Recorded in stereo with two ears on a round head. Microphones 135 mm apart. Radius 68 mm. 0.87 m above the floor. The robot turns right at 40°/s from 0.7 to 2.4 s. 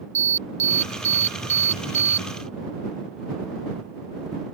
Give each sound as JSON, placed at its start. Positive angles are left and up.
{"t": 0.1, "sound": "an alarm", "side_deg": -20}